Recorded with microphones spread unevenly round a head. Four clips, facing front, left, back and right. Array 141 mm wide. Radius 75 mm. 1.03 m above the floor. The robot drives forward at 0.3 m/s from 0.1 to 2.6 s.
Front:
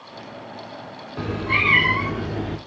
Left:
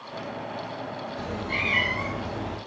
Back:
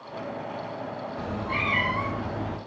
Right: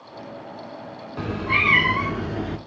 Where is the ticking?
I don't hear ticking.